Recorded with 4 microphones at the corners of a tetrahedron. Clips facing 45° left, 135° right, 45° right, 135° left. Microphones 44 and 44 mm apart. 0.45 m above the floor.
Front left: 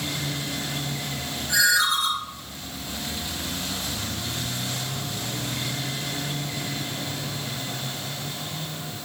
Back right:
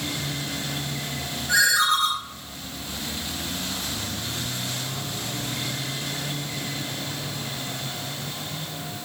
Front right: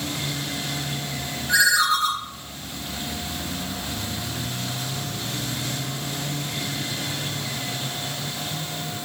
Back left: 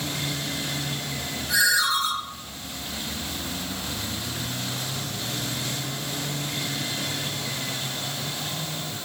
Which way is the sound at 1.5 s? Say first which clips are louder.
Back right 1 dB, front right 3 dB; 85° right.